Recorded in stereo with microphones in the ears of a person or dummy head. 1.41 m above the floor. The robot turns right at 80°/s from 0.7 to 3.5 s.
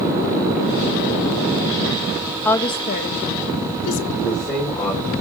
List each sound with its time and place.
2.5 s a woman speaking: 5° left (ahead or behind), 1.4 m; by 4.0 s 80° left, 1.4 m
4.2 s a man speaking: 25° left (ahead or behind), 4.5 m